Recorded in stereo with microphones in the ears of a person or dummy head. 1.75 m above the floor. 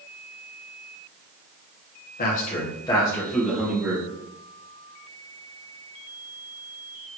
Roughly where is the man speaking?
Left.